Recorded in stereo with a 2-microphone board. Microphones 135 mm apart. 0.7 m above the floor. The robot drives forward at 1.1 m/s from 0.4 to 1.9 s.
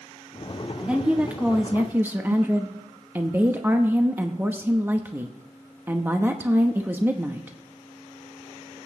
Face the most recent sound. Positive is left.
turn(degrees=-15)  # may be behind; listen again after turning